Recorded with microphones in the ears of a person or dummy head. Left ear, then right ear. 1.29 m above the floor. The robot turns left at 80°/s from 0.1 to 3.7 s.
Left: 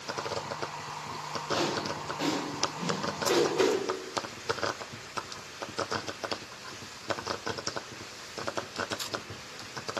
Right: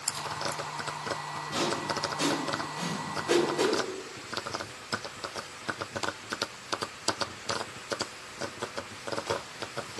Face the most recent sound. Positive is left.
turn(degrees=30)  # may be behind; listen again after turning